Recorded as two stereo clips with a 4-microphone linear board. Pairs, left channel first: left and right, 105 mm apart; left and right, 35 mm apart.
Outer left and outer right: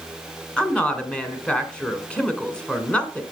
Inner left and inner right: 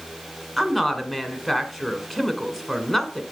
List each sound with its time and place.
0.6 s a woman speaking: 10° left (ahead or behind), 1.7 m